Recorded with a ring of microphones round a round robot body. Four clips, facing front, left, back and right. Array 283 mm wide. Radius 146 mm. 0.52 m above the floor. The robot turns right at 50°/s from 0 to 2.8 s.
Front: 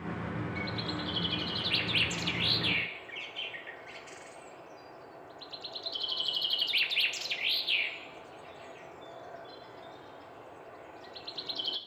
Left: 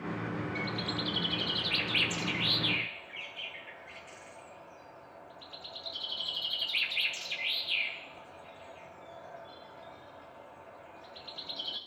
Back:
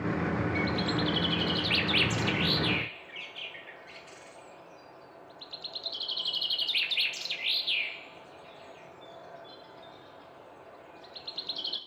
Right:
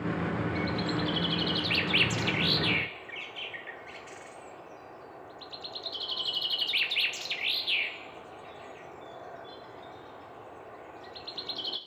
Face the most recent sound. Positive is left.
turn(degrees=-80)